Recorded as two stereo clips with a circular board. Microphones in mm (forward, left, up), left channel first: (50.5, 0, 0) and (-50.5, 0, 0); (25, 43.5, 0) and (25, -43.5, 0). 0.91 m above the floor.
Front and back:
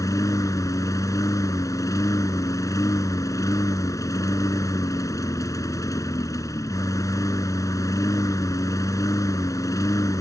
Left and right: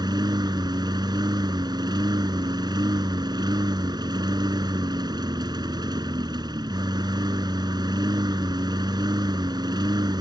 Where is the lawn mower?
55° right.